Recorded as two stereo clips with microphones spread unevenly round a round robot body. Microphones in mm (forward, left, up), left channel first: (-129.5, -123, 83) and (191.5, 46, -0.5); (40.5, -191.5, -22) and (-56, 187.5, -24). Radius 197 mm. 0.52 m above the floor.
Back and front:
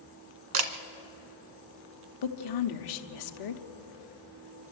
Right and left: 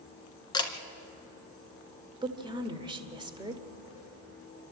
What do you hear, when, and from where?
0.5 s a camera shutter: 5° left, 1.3 m
2.2 s a woman speaking: straight behind, 1.3 m